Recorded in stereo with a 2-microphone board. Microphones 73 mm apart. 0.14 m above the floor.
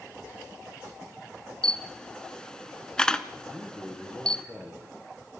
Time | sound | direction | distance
1.6 | a camera shutter | 10° left (ahead or behind) | 0.9 m
3.5 | a man speaking | 20° left (ahead or behind) | 3.5 m